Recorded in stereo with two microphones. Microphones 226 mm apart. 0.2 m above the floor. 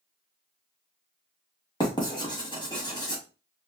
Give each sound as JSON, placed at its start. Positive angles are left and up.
{"t": 1.8, "sound": "writing", "side_deg": 20, "distance_m": 1.3}